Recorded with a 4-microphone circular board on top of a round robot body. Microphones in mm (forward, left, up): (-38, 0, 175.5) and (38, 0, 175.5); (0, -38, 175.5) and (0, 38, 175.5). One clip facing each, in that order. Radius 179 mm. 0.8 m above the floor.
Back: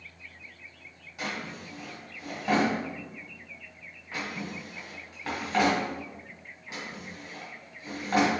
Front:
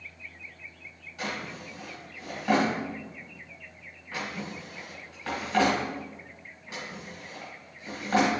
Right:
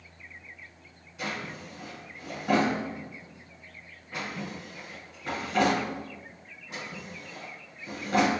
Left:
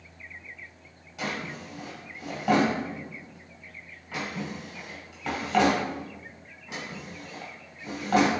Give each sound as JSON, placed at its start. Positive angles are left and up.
{"t": 1.2, "sound": "a drawer", "azimuth_deg": 105, "distance_m": 1.6}